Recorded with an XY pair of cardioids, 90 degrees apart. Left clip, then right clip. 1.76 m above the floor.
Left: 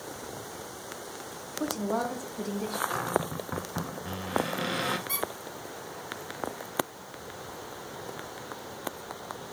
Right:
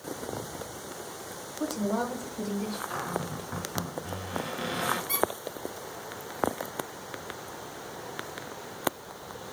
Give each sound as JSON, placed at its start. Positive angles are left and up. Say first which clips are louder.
{"t": 1.6, "sound": "a woman speaking", "louder": "even", "azimuth_deg": 20, "distance_m": 1.8}
{"t": 2.9, "sound": "a cupboard door", "louder": "left 3 dB", "azimuth_deg": 35, "distance_m": 1.0}
{"t": 5.1, "sound": "a squeak", "louder": "right 5 dB", "azimuth_deg": -5, "distance_m": 2.5}